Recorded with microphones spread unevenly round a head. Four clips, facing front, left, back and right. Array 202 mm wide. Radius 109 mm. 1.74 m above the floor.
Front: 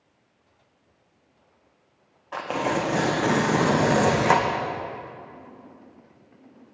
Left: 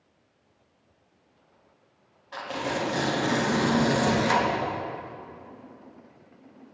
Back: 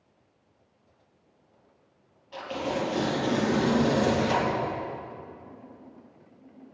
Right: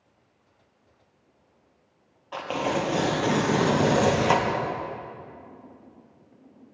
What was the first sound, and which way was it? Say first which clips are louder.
Tearing paper: right 4 dB, front 5 dB; 25° right.